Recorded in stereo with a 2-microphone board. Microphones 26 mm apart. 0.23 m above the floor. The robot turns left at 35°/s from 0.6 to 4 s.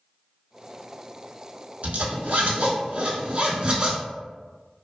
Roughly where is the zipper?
Right.